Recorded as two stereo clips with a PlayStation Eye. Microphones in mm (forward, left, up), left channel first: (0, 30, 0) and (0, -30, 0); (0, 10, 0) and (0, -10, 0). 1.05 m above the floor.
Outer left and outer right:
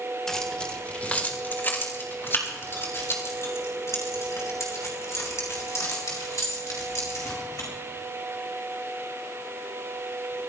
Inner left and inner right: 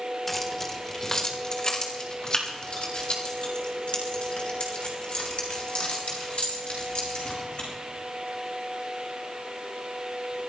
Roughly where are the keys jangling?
Centre.